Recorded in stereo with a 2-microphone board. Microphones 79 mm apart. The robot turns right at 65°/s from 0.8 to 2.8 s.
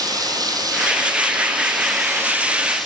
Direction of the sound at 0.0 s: 130° right.